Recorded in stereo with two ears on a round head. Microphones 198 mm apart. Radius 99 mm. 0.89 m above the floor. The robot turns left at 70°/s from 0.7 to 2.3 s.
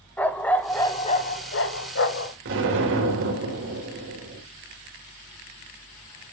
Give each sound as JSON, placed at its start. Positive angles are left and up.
{"t": 0.2, "sound": "a dog barking", "azimuth_deg": 170, "distance_m": 1.0}
{"t": 2.5, "sound": "an explosion", "side_deg": -60, "distance_m": 3.0}